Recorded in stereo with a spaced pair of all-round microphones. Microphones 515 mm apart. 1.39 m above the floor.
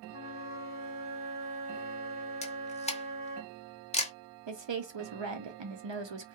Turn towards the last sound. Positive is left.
turn(degrees=-60)  # may be behind; listen again after turning